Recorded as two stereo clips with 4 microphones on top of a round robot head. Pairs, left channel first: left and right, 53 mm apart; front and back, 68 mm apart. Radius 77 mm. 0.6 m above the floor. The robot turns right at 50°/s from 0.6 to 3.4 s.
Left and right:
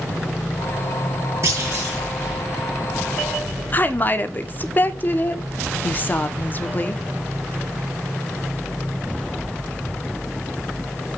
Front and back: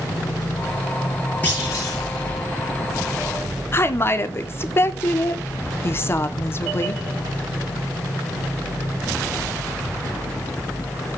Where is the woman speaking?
45° left, 1.7 m.